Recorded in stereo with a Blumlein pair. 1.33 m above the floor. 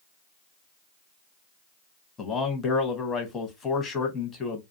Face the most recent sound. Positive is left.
turn(degrees=20)